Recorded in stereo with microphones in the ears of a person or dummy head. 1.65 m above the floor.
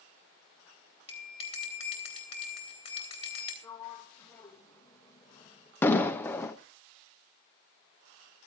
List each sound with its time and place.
1.1 s a bell: 35° left (ahead or behind), 3 m
3.6 s a sliding door: 20° left (ahead or behind), 1.9 m
5.8 s an explosion: 15° left (ahead or behind), 1.0 m